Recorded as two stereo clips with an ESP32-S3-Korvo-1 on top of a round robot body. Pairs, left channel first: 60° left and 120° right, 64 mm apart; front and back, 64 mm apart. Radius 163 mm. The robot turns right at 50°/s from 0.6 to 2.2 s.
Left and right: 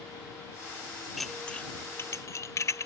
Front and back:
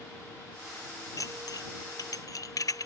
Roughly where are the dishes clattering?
Ahead right.